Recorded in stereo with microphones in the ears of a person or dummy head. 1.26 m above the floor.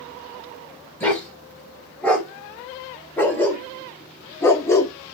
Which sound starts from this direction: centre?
A dog barking, at 1.0 s.